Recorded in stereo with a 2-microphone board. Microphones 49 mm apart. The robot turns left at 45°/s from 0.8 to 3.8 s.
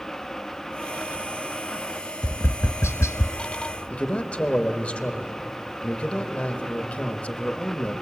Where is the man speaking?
25° left (ahead or behind), 1.2 m.